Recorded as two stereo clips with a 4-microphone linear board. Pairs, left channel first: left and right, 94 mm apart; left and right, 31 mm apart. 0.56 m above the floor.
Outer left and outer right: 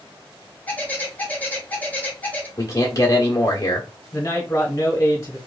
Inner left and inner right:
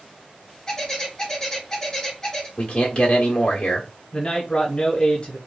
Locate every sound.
0.7 s a bird: 15° left (ahead or behind), 1.2 m
2.6 s a man speaking: 35° left (ahead or behind), 1.2 m
4.1 s a man speaking: 30° left (ahead or behind), 1.0 m